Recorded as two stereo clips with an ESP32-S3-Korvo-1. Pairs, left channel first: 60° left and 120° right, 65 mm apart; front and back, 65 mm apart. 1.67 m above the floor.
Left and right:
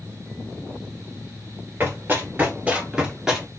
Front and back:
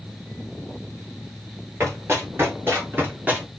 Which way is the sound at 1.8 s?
165° right.